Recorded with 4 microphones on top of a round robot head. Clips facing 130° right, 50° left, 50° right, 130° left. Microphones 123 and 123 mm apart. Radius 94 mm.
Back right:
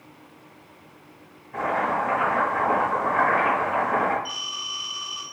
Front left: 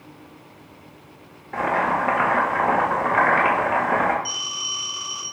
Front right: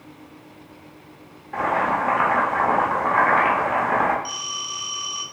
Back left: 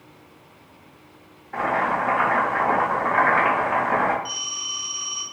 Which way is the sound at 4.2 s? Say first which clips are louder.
Front left 2 dB, front right 3 dB; straight ahead.